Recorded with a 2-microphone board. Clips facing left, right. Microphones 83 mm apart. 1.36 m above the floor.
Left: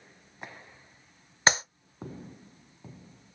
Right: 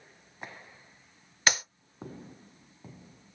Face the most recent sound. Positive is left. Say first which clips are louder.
# left 3 dB
turn(degrees=30)  # may be behind; listen again after turning